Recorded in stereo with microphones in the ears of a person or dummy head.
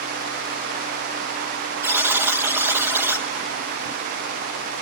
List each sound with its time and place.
1.8 s a buzzer: 15° right (ahead or behind), 1.0 m